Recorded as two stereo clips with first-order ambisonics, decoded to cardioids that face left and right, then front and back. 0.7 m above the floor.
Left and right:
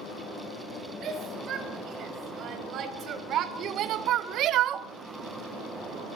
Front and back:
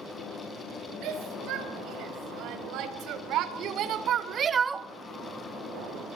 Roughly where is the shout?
Behind right.